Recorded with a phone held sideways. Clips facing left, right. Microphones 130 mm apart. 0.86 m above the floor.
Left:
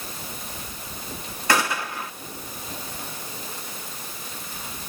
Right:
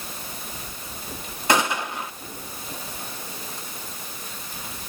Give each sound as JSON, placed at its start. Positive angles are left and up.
{"t": 1.5, "sound": "a gunshot", "side_deg": -20, "distance_m": 1.4}